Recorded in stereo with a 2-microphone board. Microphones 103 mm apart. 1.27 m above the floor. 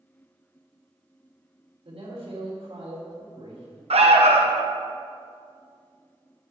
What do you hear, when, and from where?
1.9 s a man speaking: 75° right (ahead or behind), 3.5 m
3.9 s an alarm: 80° right, 1.0 m